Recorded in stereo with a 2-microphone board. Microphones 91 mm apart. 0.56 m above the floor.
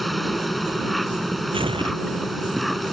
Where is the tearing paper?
75° right (ahead or behind).